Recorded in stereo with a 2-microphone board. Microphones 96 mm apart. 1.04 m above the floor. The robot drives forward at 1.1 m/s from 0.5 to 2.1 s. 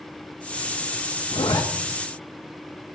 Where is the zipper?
65° left (ahead or behind), 0.6 m; by 1.6 s 40° left (ahead or behind), 0.8 m.